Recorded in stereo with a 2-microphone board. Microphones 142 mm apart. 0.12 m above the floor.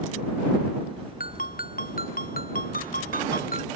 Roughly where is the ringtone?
Left.